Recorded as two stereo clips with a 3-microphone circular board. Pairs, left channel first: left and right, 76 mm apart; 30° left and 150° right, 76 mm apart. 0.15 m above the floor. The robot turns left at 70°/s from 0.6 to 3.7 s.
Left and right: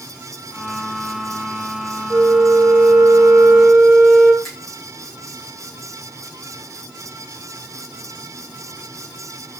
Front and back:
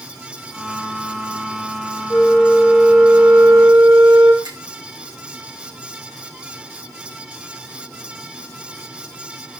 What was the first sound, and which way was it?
A flute, 40° right.